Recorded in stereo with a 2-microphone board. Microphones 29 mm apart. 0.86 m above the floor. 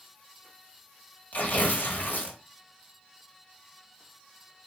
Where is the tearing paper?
80° left, 1.0 m.